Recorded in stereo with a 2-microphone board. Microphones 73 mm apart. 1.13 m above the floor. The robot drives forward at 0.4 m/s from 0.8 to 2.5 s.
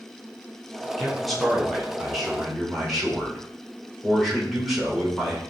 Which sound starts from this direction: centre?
A man speaking, at 1.0 s.